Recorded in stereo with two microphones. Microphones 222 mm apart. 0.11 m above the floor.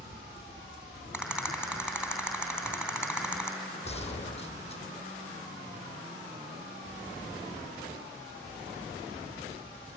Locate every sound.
1.1 s a rattle: 5° right (ahead or behind), 3 m
3.9 s a gunshot: 30° left (ahead or behind), 1.7 m